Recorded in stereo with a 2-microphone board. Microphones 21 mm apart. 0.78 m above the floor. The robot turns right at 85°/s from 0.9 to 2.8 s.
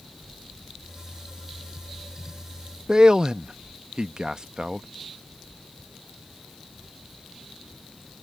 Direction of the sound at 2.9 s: 35° right (ahead or behind).